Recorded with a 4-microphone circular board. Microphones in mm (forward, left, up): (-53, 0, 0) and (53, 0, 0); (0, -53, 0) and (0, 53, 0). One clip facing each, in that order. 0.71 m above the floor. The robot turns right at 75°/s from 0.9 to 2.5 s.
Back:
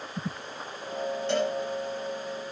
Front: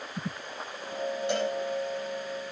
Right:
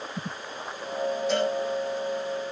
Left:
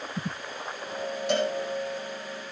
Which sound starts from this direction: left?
A cowbell, at 1.3 s.